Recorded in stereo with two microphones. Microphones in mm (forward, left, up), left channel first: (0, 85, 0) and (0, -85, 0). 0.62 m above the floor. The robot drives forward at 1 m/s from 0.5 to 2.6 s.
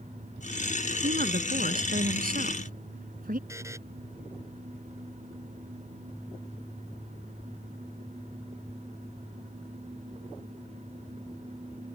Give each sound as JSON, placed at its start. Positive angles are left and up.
{"t": 1.0, "sound": "a woman speaking", "side_deg": -65}
{"t": 3.5, "sound": "a buzzer", "side_deg": -15}